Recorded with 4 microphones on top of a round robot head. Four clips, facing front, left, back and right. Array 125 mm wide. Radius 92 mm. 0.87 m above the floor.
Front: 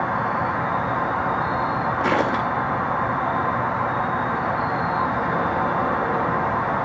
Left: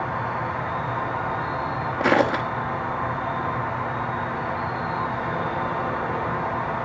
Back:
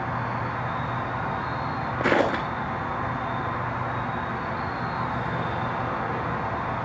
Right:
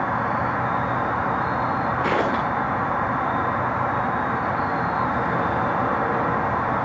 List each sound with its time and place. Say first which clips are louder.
0.0 s an insect: right 4 dB, front 6 dB; 50° right, 1.7 m
2.0 s footsteps: left 5 dB, back 1 dB; 110° left, 0.8 m